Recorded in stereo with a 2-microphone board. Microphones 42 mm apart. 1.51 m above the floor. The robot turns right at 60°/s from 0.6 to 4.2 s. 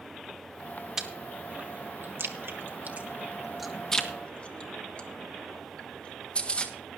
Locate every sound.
1.0 s chewing: 10° right (ahead or behind), 1.5 m; by 6.7 s 25° left (ahead or behind), 1.5 m